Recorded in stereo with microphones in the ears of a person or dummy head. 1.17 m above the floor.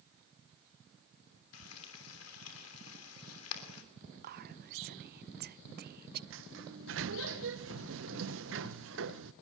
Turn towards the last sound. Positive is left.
turn(degrees=-60)  # may be behind; listen again after turning